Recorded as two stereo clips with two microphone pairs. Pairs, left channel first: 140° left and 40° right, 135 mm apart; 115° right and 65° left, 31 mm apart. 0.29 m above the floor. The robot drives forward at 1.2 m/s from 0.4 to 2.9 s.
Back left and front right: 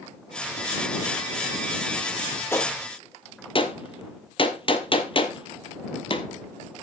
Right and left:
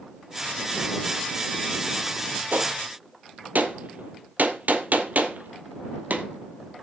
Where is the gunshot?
65° left, 1.2 m; by 6.3 s 90° left, 1.1 m.